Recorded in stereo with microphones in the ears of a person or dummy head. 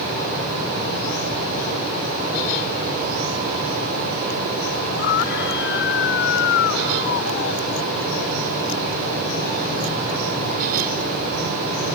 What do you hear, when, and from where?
4.9 s a scream: 55° left (ahead or behind); by 7.9 s 60° left (ahead or behind)